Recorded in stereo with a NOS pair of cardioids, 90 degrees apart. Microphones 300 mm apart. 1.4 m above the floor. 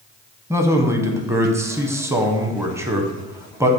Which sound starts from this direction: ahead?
A man speaking, at 0.5 s.